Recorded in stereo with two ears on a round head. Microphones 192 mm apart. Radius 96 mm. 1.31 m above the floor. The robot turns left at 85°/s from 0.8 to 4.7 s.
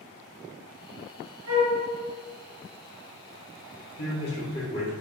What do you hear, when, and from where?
1.5 s a flute: 45° right (ahead or behind), 1.5 m; by 1.8 s 20° right (ahead or behind), 1.5 m
4.0 s a man speaking: 80° left, 1.2 m; by 4.9 s 20° left, 1.2 m